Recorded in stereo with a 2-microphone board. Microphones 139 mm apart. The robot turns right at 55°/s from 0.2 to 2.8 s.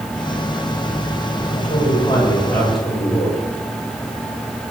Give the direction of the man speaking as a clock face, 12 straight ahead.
8 o'clock.